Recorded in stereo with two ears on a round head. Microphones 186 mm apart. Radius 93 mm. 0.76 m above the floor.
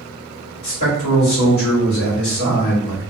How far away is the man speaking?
About 1.7 m.